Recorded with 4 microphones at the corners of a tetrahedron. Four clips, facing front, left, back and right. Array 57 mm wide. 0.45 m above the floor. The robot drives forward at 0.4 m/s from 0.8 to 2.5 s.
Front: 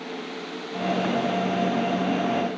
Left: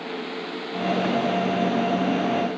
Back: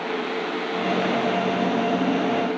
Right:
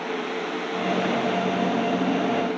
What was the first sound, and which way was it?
Only background noise.